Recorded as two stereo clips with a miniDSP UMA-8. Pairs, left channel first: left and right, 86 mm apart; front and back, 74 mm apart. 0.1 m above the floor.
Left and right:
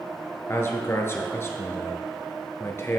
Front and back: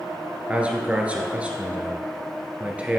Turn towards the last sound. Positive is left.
turn(degrees=120)